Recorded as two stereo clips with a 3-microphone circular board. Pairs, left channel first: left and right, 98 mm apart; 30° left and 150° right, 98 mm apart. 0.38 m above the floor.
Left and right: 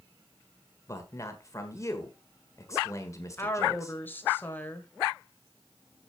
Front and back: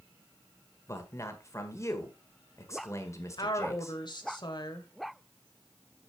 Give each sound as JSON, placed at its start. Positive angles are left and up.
{"t": 0.9, "sound": "a man speaking", "azimuth_deg": 60, "distance_m": 1.5}
{"t": 3.4, "sound": "a woman speaking", "azimuth_deg": 30, "distance_m": 1.4}